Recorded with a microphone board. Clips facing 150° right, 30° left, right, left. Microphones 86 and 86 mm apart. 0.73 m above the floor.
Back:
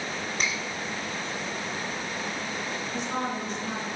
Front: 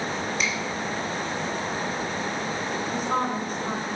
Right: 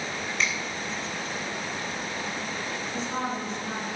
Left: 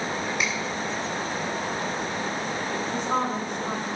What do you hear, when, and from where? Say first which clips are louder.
0.4 s a finger snap: back 1 dB, right 3 dB; 170° left, 3.5 m
2.9 s a woman speaking: front 5 dB, left 4 dB; 65° left, 3.5 m